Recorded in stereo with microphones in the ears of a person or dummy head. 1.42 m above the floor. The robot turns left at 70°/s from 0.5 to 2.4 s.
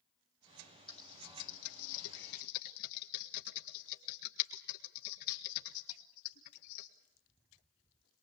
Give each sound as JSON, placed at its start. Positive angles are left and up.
{"t": 0.9, "sound": "typing on a keyboard", "side_deg": 25, "distance_m": 4.0}